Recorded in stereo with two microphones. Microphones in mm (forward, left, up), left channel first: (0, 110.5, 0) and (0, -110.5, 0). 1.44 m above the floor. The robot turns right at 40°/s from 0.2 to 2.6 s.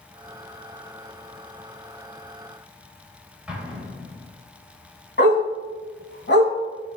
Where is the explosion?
5° right (ahead or behind), 2.5 m.